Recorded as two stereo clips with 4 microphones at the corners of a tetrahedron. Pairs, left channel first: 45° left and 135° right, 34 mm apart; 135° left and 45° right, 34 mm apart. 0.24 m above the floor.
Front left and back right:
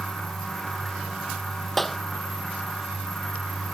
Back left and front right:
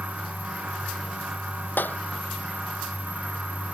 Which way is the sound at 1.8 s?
130° left.